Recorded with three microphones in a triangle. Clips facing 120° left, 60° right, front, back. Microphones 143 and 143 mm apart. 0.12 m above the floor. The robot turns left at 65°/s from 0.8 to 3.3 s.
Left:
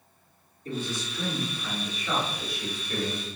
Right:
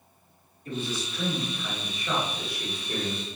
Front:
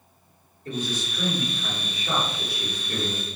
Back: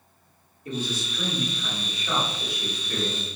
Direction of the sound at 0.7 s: 110° left.